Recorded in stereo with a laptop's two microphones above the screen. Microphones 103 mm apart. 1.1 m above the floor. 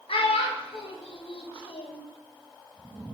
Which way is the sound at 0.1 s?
65° left (ahead or behind).